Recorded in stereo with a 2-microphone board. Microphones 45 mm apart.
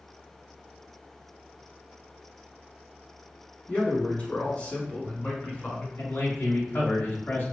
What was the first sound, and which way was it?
A man speaking, 30° left (ahead or behind).